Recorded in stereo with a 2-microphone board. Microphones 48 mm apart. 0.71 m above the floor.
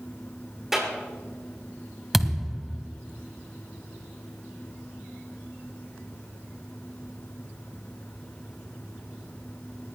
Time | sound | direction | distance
0.7 | a clap | 10° right (ahead or behind) | 9.5 m
2.1 | a thud | 5° right (ahead or behind) | 1.6 m